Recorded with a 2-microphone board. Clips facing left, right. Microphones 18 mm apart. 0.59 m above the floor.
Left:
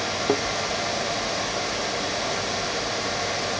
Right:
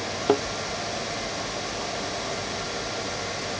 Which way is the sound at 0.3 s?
20° right (ahead or behind).